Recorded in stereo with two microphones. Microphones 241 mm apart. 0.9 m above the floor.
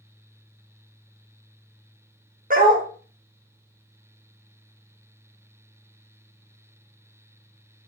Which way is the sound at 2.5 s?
35° right (ahead or behind).